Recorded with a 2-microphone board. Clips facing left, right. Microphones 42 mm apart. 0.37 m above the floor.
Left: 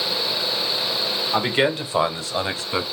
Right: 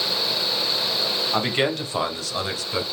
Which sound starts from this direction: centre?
A man speaking, at 1.3 s.